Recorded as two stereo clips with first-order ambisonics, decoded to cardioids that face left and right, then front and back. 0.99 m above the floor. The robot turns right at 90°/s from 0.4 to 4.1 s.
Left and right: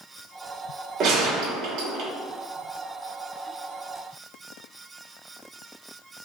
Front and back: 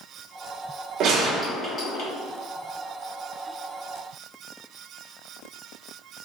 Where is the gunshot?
135° right, 0.9 m; by 2.1 s 40° right, 0.9 m.